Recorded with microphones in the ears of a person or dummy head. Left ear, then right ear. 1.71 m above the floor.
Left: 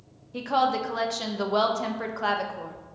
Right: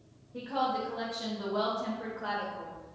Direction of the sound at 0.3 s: 70° left (ahead or behind).